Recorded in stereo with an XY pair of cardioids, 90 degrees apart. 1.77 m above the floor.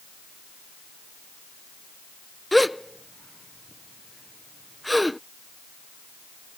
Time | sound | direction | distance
2.5 | a gasp | 5° left | ?